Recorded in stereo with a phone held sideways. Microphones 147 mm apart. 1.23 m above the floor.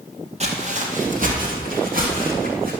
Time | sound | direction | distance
0.4 | footsteps | 45° right (ahead or behind) | 1.9 m